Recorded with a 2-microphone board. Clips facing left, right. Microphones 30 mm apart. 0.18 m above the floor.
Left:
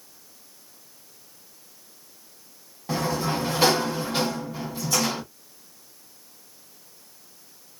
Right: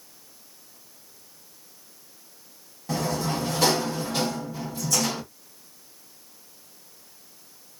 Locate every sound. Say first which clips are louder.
2.9 s a sliding door: left 1 dB; 20° left (ahead or behind), 0.9 m